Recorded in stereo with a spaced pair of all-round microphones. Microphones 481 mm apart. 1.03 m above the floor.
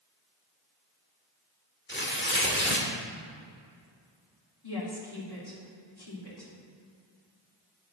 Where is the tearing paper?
20° left (ahead or behind), 1.6 m.